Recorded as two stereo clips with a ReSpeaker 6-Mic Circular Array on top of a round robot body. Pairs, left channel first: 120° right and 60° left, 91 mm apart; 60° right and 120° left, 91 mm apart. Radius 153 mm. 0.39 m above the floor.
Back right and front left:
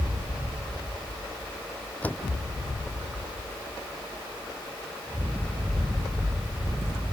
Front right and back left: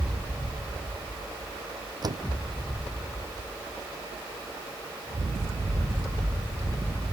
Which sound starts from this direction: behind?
A door slam, at 2.0 s.